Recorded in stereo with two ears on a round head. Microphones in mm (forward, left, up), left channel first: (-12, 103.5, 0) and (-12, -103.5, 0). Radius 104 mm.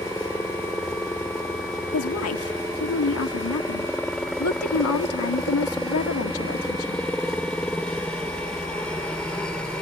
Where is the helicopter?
5° left (ahead or behind).